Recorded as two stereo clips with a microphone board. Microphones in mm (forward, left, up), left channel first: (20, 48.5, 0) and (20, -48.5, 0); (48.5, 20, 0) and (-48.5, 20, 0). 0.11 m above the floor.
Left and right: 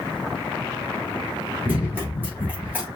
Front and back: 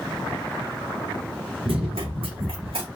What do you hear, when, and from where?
1.6 s running footsteps: 160° right, 3 m; by 2.9 s 165° right, 4 m